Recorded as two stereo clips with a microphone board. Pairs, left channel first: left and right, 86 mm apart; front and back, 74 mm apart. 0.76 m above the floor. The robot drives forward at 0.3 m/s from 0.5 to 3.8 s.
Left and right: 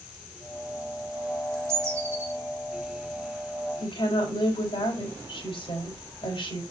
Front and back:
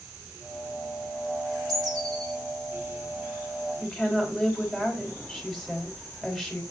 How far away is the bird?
About 2 m.